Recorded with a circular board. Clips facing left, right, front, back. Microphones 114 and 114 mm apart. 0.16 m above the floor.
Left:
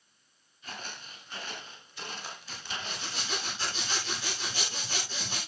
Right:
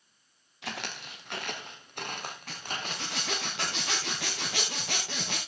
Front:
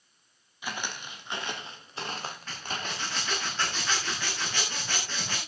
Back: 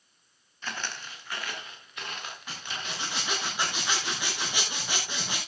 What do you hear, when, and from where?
0.6 s footsteps: 80° right, 3.5 m; by 3.2 s 45° right, 4.5 m
2.5 s a zipper: 105° right, 5.5 m